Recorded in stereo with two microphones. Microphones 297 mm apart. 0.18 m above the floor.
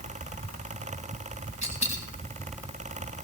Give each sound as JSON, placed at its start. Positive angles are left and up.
{"t": 1.6, "sound": "a dropped coin", "side_deg": -65, "distance_m": 7.0}